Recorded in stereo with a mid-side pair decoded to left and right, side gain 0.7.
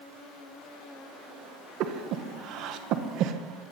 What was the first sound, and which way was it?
Breathing, 60° right.